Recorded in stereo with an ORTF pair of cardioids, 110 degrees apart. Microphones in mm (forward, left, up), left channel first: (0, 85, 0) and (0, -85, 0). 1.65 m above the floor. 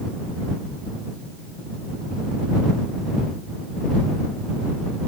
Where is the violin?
I don't hear a violin.